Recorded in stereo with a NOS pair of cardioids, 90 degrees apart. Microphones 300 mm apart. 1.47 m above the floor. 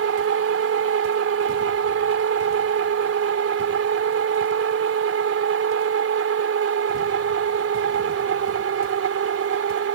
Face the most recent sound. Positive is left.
turn(degrees=-50)